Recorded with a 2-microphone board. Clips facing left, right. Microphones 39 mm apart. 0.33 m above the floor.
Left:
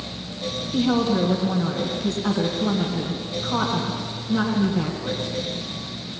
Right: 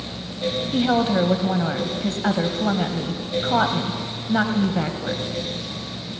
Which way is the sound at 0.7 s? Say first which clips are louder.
Even; 55° right (ahead or behind).